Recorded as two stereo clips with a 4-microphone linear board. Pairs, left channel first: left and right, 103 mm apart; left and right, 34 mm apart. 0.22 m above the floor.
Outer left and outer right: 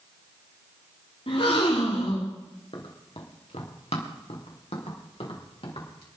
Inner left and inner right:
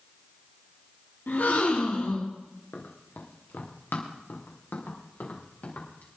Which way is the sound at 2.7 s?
60° left (ahead or behind).